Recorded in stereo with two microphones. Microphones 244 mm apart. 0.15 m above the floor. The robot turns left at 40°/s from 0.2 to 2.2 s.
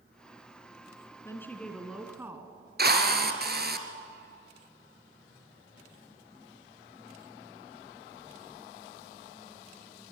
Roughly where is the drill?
Right.